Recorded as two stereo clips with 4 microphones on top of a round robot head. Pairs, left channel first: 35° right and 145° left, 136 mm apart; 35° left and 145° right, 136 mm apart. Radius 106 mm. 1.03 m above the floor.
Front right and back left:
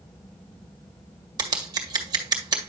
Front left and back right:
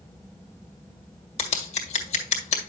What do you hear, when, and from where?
1.4 s scissors: 80° left, 1.9 m